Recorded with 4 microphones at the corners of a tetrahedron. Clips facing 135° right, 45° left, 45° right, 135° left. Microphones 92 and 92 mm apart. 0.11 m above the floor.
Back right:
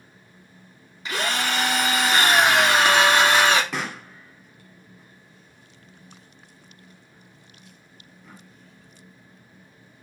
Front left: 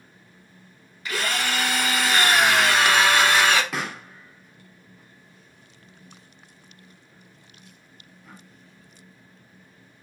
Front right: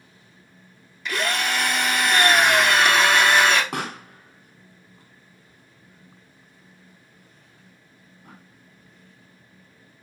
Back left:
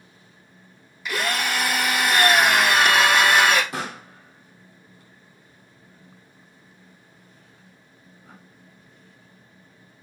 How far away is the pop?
About 1.5 m.